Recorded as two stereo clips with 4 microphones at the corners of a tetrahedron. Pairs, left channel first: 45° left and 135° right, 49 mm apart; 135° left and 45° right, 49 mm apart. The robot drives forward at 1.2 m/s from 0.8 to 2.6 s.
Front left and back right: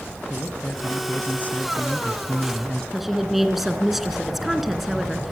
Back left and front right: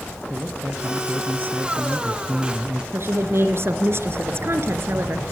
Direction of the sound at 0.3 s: 5° right.